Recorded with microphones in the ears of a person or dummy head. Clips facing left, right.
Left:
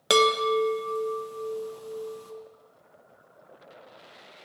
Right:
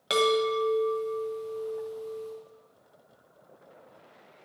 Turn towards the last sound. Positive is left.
turn(degrees=60)  # may be behind; listen again after turning